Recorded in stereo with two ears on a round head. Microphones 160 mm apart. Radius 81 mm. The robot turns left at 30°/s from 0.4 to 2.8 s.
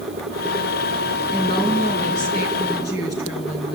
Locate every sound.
1.3 s a woman speaking: 155° left, 5.5 m; by 3.8 s 110° left, 5.5 m